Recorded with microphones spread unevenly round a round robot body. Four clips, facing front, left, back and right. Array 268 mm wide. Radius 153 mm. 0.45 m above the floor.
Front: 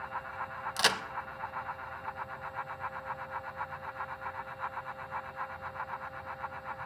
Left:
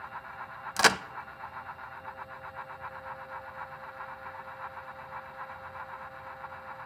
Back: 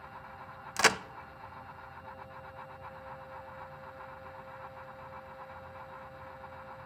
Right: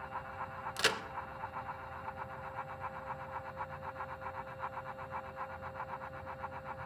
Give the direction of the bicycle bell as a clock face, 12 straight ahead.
I don't hear a bicycle bell.